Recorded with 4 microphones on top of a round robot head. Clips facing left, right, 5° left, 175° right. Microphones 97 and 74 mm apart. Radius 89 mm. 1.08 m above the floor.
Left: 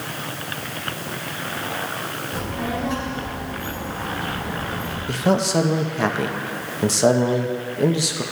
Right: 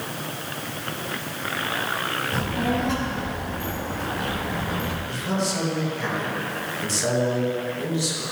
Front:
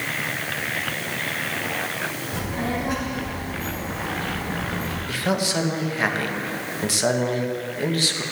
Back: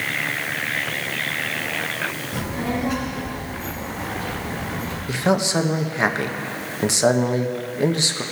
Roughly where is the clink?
I don't hear a clink.